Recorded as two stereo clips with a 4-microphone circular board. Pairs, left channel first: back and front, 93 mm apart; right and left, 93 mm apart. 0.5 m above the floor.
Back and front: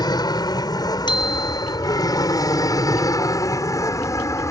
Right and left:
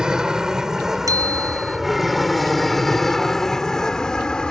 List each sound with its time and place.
0.0 s an aircraft: 170° left; by 4.5 s 165° right
1.1 s a bicycle bell: 140° left